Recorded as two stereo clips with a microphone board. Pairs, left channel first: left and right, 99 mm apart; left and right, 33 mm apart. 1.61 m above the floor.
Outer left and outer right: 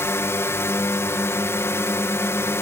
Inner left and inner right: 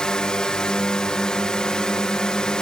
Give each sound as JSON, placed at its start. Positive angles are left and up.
{"t": 0.0, "sound": "a drone", "side_deg": 25}